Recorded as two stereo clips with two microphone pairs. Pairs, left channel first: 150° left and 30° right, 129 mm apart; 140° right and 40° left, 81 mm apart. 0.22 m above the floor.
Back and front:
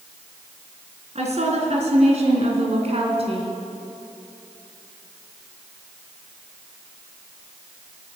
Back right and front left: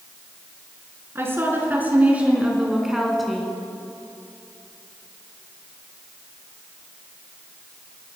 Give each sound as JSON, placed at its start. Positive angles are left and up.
{"t": 1.1, "sound": "a woman speaking", "azimuth_deg": -15, "distance_m": 3.5}